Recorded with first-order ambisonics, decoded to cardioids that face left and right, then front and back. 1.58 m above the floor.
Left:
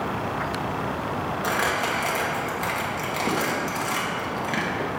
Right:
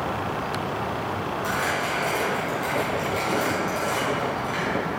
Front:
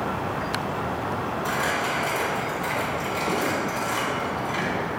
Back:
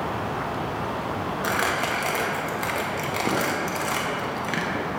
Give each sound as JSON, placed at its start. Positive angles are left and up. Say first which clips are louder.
{"t": 1.4, "sound": "crumpling", "louder": "left 2 dB, back 2 dB", "azimuth_deg": 155, "distance_m": 1.2}